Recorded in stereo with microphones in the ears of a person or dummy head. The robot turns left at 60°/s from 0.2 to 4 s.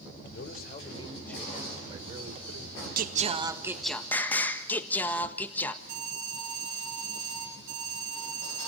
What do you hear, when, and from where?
0.3 s a man speaking: 70° left, 4 m; by 4.0 s 145° right, 4 m
3.0 s singing: 125° right, 1.4 m; by 5.8 s 175° left, 1.4 m
5.9 s an alarm: 85° right, 9.5 m